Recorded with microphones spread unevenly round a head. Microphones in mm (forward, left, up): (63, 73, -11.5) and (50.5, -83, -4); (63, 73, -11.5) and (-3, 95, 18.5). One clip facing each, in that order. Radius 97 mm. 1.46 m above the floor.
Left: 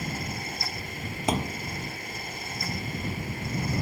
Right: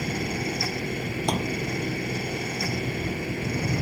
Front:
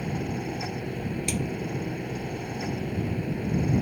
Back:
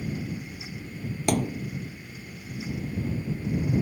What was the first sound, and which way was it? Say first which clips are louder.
A fan: right 6 dB, front 3 dB; 85° right.